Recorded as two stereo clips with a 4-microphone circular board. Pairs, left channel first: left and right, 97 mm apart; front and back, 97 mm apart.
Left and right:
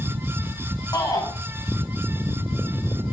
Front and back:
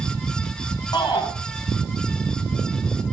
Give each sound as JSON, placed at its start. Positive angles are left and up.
{"t": 0.9, "sound": "a shout", "azimuth_deg": 40, "distance_m": 8.0}